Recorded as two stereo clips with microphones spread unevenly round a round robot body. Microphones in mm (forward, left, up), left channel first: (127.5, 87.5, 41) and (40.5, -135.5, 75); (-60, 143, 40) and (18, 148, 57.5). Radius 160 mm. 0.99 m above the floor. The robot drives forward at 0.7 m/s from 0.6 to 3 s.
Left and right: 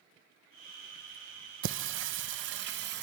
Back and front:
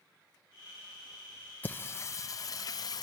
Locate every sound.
1.6 s singing: 130° right, 0.8 m; by 3.0 s 160° right, 1.5 m